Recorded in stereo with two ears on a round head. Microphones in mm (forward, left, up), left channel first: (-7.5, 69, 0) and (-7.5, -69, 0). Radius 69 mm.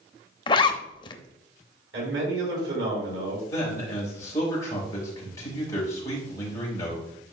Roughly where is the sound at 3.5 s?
Centre.